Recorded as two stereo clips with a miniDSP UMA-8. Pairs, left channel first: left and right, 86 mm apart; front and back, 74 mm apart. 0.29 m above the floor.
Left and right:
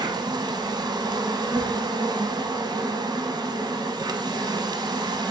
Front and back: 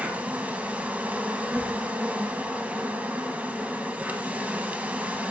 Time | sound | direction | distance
0.0 | an insect | 110° right | 0.9 m